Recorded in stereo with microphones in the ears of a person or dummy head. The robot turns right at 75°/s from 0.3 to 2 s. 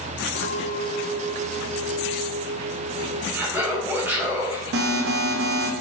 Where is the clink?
110° left, 1.3 m; by 3.2 s 125° right, 1.3 m.